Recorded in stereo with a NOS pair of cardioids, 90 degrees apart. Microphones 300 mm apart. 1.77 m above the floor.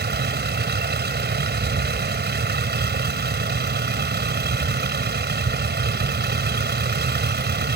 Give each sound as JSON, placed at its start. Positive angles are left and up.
{"t": 0.0, "sound": "a vehicle", "azimuth_deg": -35}